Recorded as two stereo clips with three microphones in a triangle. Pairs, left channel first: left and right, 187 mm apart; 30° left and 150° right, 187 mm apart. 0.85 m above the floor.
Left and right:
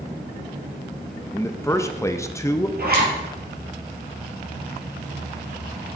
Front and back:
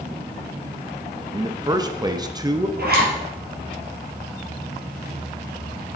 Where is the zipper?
120° right, 3 m.